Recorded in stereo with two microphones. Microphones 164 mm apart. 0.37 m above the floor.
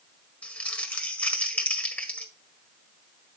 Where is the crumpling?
10° left (ahead or behind), 1.5 m.